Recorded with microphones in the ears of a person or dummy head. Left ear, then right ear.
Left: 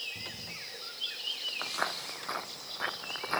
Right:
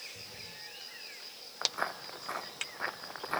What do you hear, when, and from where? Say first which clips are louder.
1.6 s footsteps: right 4 dB; 10° right (ahead or behind); by 3.4 s 5° right (ahead or behind)